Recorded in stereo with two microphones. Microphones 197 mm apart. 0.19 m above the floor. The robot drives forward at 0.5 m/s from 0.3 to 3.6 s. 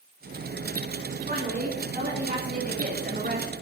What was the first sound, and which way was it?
A woman speaking, 40° right (ahead or behind).